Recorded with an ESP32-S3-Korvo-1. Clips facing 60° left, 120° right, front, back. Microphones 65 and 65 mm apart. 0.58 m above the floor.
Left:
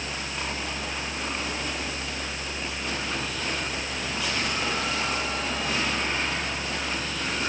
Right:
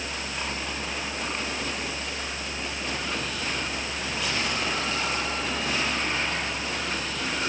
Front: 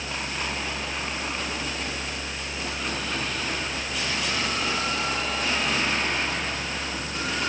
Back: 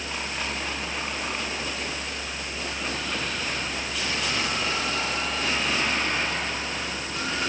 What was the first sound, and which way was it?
Only background noise.